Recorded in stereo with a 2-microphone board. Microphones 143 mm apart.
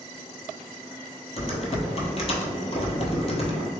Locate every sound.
1.4 s typing on a keyboard: 45° left (ahead or behind), 0.8 m